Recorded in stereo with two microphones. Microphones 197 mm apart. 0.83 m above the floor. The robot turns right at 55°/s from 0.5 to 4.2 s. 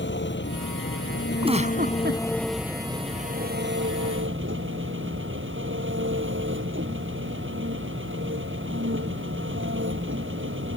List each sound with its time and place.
0.0 s an engine running: 70° left; by 10.8 s 85° right
1.4 s a giggle: 155° right; by 2.2 s 110° right